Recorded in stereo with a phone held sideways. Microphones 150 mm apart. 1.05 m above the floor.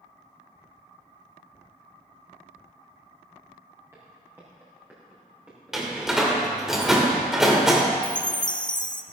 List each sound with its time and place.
3.9 s footsteps: 20° right (ahead or behind), 7 m; by 6.2 s 5° right (ahead or behind), 6.5 m
5.7 s a door slam: centre (ahead or behind), 2 m
8.0 s a chime: 30° left (ahead or behind), 0.6 m